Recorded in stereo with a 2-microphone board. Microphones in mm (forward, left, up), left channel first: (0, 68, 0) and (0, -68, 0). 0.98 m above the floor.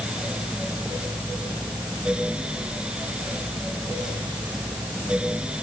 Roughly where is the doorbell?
I don't hear a doorbell.